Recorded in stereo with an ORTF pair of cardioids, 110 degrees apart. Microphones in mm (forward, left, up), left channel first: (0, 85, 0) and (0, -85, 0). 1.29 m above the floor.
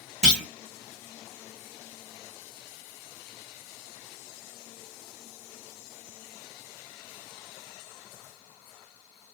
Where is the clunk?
5° left, 0.7 m.